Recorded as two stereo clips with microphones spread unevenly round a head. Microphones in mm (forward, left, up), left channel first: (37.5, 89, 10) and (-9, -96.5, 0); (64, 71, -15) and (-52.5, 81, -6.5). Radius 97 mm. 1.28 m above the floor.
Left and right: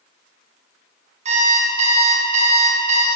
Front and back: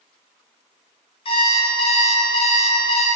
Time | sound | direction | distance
1.2 | an alarm clock | 50° right | 0.7 m